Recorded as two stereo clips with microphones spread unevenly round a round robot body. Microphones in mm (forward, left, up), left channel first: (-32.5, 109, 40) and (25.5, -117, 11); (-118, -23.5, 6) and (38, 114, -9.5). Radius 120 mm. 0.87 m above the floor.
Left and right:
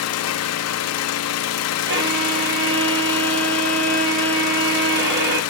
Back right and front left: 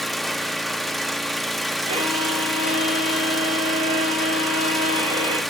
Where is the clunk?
No clunk in this recording.